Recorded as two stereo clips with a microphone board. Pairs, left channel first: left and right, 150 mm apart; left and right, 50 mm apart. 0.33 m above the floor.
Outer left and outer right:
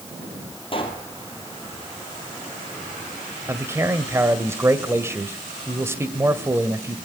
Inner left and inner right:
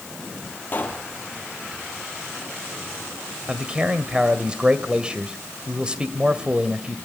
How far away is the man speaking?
About 1.8 m.